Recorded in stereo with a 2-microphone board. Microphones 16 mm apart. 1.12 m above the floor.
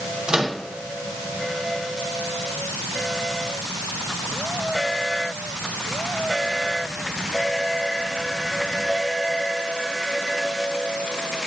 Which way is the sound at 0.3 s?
55° right (ahead or behind).